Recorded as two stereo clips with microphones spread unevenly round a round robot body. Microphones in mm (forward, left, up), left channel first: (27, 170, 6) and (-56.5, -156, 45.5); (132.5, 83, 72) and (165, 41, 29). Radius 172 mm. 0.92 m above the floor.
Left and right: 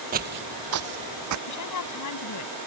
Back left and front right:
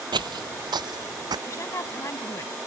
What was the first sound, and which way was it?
Footsteps, 50° right.